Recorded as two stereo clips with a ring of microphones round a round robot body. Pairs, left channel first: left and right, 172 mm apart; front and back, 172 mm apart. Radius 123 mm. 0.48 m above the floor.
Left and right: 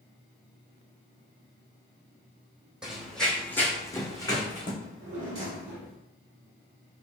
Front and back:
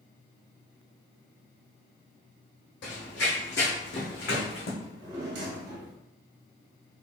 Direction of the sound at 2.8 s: 5° right.